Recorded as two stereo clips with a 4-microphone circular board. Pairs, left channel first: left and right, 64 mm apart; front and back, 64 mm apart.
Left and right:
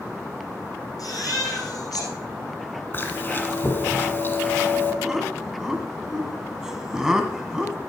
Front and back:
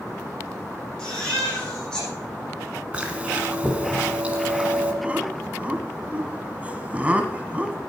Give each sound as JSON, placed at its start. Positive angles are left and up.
{"t": 1.0, "sound": "a baby crying", "azimuth_deg": 75, "distance_m": 6.0}
{"t": 2.9, "sound": "chewing", "azimuth_deg": 120, "distance_m": 1.5}
{"t": 5.0, "sound": "laughter", "azimuth_deg": -155, "distance_m": 1.3}